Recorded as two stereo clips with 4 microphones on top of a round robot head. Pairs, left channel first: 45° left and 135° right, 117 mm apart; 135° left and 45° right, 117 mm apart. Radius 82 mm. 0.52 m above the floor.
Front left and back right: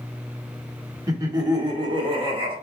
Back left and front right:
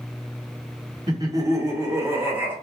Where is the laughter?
85° right, 1.5 m; by 2.5 s 110° right, 1.9 m.